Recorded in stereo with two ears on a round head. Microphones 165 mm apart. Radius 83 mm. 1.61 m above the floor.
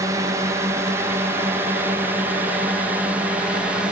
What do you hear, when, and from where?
0.0 s a drone: 20° right (ahead or behind); by 3.9 s 5° right (ahead or behind)